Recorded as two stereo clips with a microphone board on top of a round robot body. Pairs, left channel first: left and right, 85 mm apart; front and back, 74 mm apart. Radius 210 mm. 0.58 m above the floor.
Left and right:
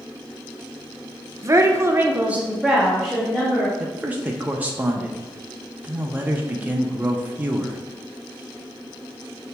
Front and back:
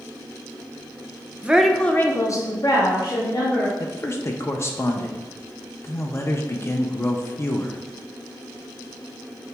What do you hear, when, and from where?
1.4 s a woman speaking: 120° right, 0.6 m; by 3.7 s straight ahead, 1.3 m
3.8 s a man speaking: 30° right, 0.6 m